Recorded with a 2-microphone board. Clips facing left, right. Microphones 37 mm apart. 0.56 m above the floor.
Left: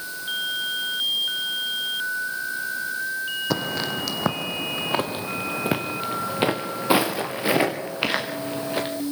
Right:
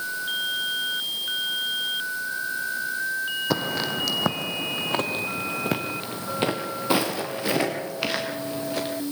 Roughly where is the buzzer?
No buzzer in this recording.